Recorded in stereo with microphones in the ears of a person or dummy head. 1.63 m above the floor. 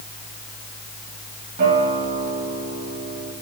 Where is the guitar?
55° right (ahead or behind), 2.5 m.